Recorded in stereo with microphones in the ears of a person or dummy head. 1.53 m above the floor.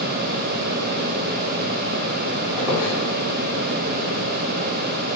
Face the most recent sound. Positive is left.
turn(degrees=-10)  # may be behind; listen again after turning